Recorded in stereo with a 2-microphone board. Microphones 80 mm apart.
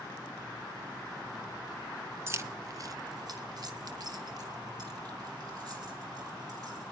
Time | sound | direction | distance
2.3 | keys jangling | 35° right (ahead or behind) | 0.9 m